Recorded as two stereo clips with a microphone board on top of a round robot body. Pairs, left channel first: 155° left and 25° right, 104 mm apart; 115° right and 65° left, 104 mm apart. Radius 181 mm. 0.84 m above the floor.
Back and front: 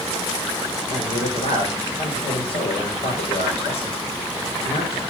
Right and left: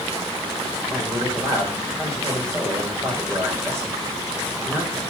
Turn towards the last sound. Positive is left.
turn(degrees=140)